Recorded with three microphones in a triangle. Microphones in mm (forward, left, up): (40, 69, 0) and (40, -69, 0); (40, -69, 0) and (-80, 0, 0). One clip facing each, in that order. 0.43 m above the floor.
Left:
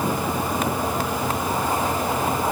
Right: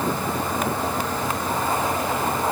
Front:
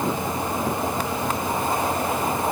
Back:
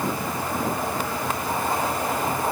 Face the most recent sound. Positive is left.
No sound to turn to.